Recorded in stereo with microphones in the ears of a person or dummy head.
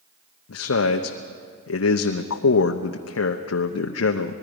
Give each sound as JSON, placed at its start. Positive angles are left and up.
{"t": 0.5, "sound": "a man speaking", "side_deg": 80, "distance_m": 0.8}